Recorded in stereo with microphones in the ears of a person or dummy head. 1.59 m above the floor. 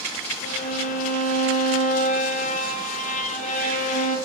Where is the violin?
50° left (ahead or behind), 1.0 m.